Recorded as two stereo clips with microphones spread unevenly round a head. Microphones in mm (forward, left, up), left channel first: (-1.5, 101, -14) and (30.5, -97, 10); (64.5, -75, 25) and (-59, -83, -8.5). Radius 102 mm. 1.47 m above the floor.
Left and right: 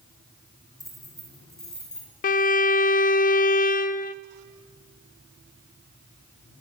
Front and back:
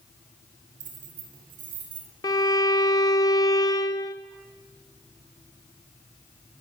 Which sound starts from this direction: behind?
Keys jangling, at 0.8 s.